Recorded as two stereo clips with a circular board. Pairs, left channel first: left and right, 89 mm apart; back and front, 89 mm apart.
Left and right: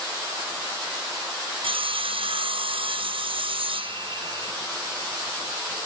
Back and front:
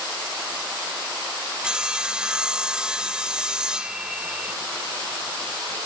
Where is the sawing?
80° right.